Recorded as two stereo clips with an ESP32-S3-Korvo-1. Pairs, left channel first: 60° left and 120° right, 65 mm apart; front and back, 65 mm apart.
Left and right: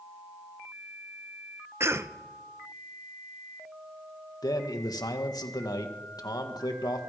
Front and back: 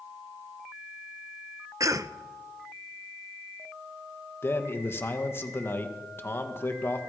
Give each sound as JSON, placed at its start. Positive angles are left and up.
{"t": 1.8, "sound": "a cough", "azimuth_deg": -165, "distance_m": 1.0}
{"t": 4.4, "sound": "a man speaking", "azimuth_deg": 50, "distance_m": 2.0}